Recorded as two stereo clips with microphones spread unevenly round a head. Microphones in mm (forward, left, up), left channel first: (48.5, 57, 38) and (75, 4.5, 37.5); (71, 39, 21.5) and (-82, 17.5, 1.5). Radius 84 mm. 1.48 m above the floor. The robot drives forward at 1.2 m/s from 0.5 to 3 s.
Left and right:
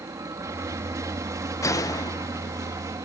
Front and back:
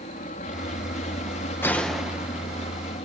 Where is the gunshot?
85° left; by 2.8 s 130° left.